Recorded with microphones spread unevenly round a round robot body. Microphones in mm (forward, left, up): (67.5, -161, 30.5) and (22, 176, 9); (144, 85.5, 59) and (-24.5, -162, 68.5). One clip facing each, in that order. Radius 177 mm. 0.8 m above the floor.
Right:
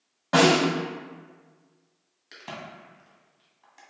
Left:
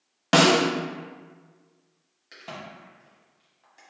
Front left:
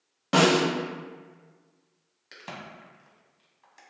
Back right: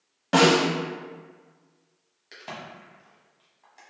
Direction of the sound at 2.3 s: 10° right.